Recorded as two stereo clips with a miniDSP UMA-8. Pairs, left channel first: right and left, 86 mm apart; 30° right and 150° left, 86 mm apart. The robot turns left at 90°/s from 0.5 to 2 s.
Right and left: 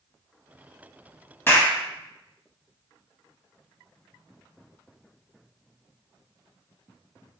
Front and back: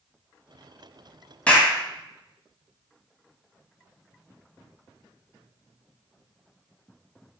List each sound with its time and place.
1.5 s a clap: 85° right, 0.8 m; by 1.7 s 110° right, 0.8 m